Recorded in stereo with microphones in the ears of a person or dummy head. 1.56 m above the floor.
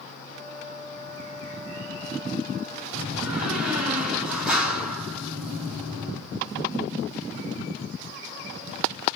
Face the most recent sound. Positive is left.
turn(degrees=-5)  # may be behind; listen again after turning